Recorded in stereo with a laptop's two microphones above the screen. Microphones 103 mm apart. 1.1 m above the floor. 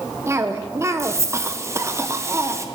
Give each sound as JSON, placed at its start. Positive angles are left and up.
{"t": 0.3, "sound": "a cough", "side_deg": -25, "distance_m": 0.5}